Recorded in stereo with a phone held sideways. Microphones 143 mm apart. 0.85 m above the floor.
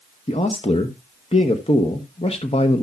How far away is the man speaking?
About 1.0 m.